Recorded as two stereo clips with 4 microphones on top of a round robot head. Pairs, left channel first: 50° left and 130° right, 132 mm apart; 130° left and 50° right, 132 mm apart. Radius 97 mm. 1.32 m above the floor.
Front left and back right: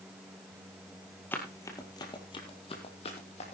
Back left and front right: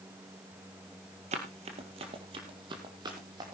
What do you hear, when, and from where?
1.3 s running footsteps: 25° right, 1.7 m; by 3.5 s 10° left, 3 m